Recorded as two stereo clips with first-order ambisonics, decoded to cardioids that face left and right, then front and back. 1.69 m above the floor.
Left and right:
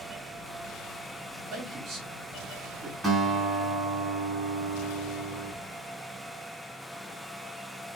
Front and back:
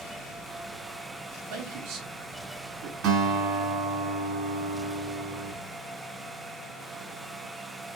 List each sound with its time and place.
1.5 s a man speaking: 150° right, 2 m
3.0 s a guitar: 155° right, 3 m